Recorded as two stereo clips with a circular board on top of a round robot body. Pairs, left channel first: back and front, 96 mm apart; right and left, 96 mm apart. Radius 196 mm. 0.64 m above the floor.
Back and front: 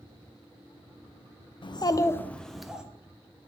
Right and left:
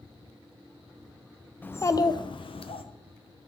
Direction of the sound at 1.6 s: 160° right.